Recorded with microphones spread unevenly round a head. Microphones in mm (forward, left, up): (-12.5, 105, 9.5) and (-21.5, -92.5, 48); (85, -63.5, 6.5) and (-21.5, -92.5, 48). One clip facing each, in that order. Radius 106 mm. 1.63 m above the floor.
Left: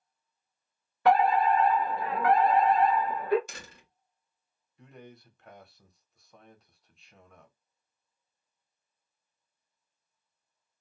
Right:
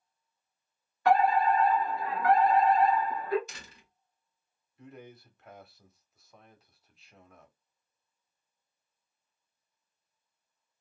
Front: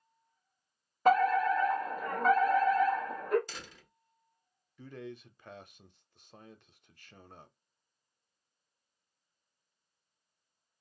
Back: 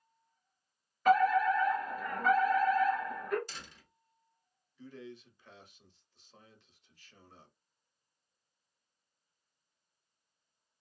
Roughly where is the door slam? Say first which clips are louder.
Left 4 dB, front 3 dB; ahead left.